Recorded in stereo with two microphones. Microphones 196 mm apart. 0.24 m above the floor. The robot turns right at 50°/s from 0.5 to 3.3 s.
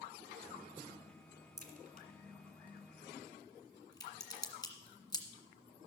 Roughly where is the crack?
Right.